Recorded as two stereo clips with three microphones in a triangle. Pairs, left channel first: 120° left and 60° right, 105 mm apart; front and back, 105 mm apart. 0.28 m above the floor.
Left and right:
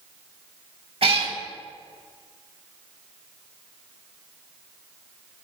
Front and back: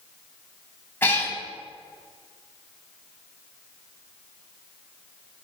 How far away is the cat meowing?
About 0.7 m.